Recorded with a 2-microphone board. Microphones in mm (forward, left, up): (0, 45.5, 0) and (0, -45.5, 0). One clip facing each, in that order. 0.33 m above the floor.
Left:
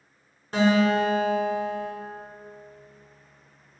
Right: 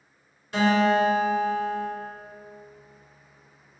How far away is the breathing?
No breathing in this recording.